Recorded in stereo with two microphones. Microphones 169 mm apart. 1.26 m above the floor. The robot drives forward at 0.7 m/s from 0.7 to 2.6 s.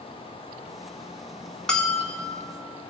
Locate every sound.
1.7 s a bell: 5° left (ahead or behind), 1.7 m